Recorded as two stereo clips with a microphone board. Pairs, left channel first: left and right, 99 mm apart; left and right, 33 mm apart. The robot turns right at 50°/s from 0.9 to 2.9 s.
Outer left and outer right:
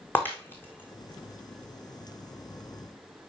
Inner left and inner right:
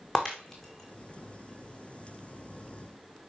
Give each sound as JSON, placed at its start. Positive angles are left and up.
{"t": 0.1, "sound": "breaking glass", "side_deg": 20, "distance_m": 2.5}